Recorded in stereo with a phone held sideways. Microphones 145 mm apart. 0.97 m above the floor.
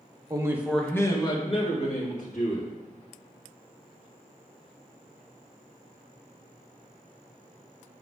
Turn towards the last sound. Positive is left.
turn(degrees=60)  # may be behind; listen again after turning